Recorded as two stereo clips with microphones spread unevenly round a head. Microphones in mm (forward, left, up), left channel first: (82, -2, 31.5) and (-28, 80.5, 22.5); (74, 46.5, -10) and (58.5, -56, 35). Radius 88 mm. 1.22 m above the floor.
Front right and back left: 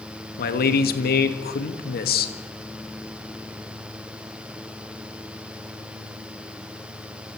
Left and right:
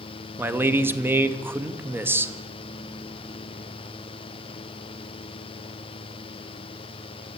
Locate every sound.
0.4 s a man speaking: 25° right, 1.8 m